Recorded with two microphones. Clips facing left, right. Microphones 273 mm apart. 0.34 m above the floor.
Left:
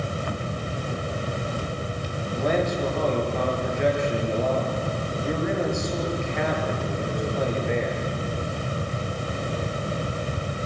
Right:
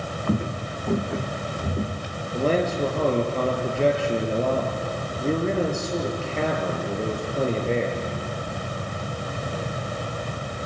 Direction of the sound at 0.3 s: 50° right (ahead or behind).